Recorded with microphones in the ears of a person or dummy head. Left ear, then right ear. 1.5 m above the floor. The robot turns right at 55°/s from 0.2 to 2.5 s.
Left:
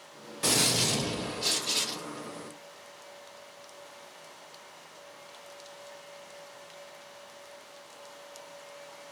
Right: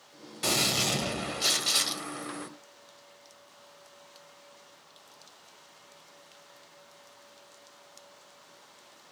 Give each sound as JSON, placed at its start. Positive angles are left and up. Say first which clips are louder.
{"t": 0.4, "sound": "a gunshot", "louder": "left 1 dB", "azimuth_deg": 180, "distance_m": 0.6}